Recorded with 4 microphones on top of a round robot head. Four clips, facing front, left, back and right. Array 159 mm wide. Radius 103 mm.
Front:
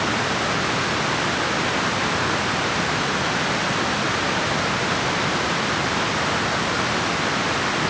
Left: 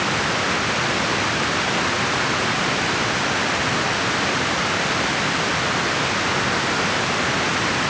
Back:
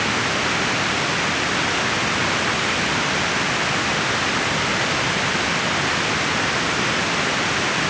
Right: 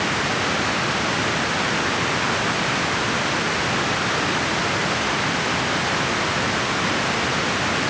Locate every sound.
Only background noise.